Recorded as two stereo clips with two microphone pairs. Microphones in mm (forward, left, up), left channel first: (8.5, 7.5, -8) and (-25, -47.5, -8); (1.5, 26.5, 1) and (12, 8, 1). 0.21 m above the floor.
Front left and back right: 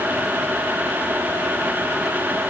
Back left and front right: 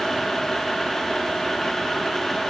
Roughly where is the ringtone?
I don't hear a ringtone.